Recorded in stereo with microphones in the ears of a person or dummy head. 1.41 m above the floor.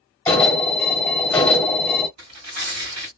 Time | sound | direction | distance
0.3 | an alarm | 5° left (ahead or behind) | 1.7 m
2.2 | tearing paper | 50° right (ahead or behind) | 2 m